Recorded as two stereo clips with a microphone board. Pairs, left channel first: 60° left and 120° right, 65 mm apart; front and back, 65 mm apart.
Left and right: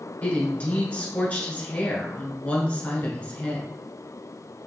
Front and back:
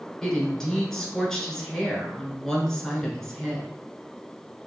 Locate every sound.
0.2 s a woman speaking: 70° left, 1.1 m